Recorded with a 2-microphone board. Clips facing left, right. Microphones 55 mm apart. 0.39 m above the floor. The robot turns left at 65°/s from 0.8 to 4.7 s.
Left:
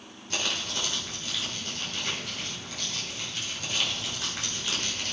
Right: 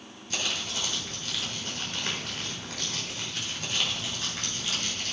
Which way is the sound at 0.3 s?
40° left.